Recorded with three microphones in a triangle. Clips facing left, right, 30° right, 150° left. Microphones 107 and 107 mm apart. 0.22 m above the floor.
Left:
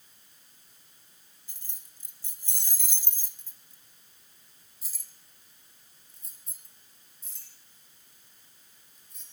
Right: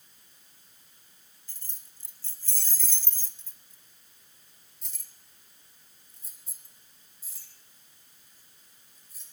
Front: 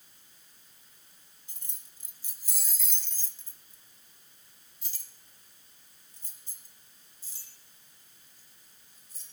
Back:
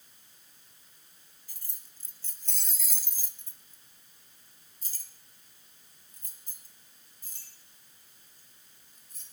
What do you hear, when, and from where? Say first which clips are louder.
1.5 s keys jangling: even, even; 25° left, 1.2 m; by 9.2 s 175° right, 3.5 m